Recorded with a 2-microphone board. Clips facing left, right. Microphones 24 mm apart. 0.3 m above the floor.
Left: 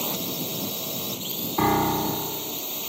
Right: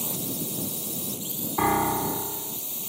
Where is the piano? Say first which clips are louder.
Left 1 dB; centre (ahead or behind).